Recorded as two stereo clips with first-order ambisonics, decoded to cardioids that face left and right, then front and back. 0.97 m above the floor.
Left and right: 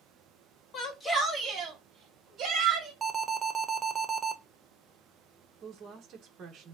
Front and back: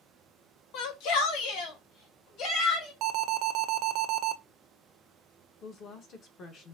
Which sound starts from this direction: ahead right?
A woman speaking, at 5.6 s.